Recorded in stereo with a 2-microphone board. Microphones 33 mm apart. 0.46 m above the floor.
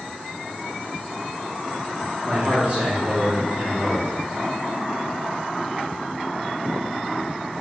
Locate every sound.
2.2 s a man speaking: 30° right (ahead or behind), 1.4 m; by 4.1 s 45° right (ahead or behind), 2.5 m